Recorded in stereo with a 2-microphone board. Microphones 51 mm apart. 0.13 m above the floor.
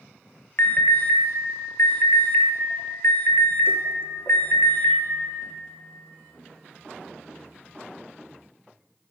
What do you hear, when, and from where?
0.6 s an alarm: 60° left (ahead or behind), 1.3 m